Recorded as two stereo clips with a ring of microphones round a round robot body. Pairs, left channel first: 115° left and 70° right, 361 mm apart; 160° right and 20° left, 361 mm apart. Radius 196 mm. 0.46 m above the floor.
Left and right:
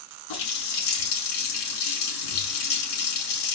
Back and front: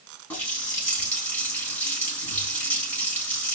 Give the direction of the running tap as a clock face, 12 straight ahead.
8 o'clock.